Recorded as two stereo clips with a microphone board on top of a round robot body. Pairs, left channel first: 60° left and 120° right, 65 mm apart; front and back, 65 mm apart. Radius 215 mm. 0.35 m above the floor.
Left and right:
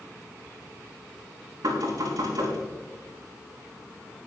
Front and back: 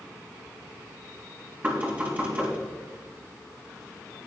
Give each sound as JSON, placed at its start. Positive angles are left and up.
{"t": 1.6, "sound": "knocking", "azimuth_deg": -115, "distance_m": 5.5}